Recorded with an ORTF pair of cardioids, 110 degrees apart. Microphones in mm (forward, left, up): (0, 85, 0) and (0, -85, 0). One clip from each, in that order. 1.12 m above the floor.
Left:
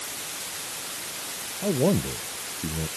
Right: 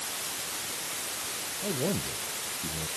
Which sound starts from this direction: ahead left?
A man speaking, at 1.6 s.